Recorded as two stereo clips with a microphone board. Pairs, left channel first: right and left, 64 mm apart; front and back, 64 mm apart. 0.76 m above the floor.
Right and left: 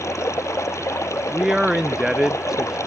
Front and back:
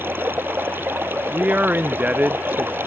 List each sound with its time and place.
0.0 s running water: 130° right
1.3 s a man speaking: 155° left